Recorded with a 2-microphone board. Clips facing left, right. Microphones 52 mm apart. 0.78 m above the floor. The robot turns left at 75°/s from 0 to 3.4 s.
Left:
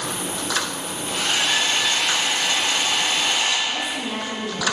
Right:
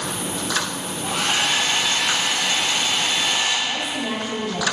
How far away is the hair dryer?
About 1.9 m.